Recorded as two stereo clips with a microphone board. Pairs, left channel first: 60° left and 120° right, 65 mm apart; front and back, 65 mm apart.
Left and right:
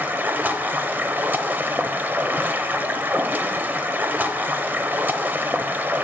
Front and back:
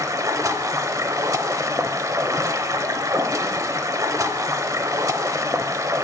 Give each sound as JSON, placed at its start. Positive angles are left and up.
{"t": 0.0, "sound": "running water", "azimuth_deg": -175, "distance_m": 0.9}